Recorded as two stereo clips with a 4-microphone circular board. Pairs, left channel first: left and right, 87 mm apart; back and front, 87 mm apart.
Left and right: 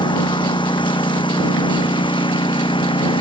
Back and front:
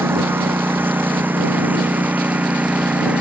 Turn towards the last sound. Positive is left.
turn(degrees=75)